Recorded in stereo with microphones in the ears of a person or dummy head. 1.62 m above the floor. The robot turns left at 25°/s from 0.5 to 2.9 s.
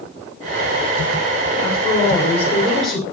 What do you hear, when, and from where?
1.6 s a woman speaking: 30° left, 6.5 m; by 3.0 s 5° right, 6.5 m